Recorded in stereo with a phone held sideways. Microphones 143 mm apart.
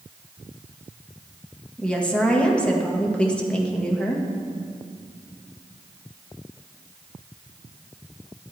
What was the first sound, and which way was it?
A woman speaking, 5° left (ahead or behind).